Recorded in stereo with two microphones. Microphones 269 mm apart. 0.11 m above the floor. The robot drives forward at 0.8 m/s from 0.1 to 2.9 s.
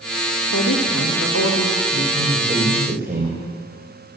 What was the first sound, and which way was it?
A woman speaking, 70° left (ahead or behind).